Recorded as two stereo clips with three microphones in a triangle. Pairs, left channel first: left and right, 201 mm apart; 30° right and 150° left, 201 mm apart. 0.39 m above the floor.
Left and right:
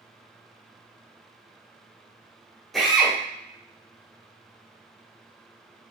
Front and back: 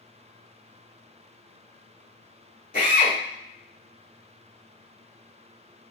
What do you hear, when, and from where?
2.7 s a drill: straight ahead, 1.2 m